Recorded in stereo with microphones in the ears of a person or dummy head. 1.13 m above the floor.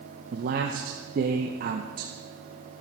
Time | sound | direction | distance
0.3 | a man speaking | 50° right (ahead or behind) | 0.9 m